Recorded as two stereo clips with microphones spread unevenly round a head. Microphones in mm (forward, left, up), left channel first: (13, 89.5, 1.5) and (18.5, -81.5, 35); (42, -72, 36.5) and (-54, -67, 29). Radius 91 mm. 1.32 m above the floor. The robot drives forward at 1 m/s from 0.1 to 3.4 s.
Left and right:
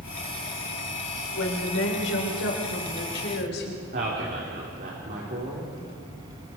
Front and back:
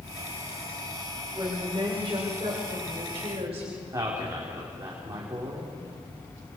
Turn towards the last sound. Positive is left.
turn(degrees=-130)